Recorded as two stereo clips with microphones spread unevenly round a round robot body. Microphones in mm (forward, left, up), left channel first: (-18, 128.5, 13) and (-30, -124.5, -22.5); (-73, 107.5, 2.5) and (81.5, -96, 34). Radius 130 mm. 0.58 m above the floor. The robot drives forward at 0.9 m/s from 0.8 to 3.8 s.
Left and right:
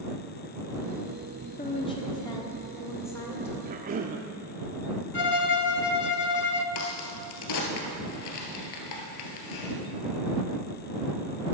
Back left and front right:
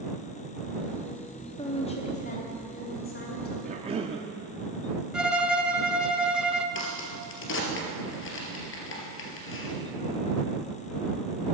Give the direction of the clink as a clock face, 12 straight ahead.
I don't hear a clink.